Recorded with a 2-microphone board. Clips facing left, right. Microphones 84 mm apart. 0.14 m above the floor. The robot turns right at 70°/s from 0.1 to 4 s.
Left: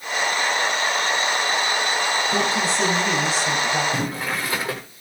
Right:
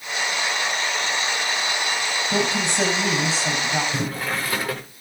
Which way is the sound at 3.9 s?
20° left (ahead or behind).